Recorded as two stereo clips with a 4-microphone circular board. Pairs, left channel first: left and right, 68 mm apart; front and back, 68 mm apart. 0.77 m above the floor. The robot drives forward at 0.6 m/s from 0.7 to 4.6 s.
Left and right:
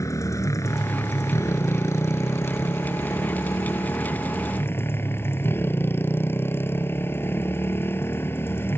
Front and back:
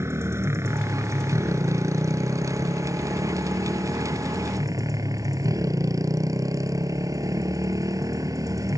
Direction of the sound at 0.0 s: 130° left.